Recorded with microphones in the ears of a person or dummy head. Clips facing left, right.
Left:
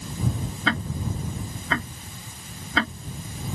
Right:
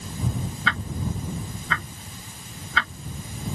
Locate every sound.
0.7 s ticking: 30° left (ahead or behind)